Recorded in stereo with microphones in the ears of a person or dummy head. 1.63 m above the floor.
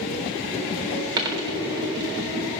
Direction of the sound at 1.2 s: 20° right (ahead or behind).